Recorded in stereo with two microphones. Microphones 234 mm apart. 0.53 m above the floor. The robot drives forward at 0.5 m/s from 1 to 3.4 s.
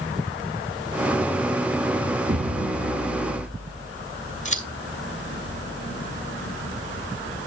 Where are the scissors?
30° left (ahead or behind), 2 m.